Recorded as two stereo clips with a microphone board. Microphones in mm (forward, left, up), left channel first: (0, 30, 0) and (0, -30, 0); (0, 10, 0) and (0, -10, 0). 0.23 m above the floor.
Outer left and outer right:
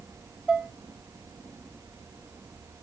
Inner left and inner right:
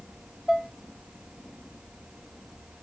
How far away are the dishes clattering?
About 1.1 m.